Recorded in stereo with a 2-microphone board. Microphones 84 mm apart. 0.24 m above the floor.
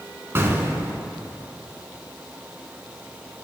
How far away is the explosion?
About 0.7 m.